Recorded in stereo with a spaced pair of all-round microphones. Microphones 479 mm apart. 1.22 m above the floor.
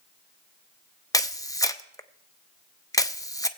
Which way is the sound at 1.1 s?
10° left (ahead or behind).